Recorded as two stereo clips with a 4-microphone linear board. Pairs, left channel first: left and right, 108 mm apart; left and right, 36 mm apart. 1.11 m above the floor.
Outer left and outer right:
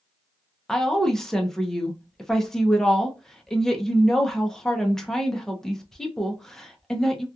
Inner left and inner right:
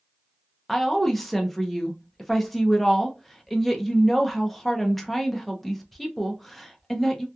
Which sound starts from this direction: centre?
A woman speaking, at 0.7 s.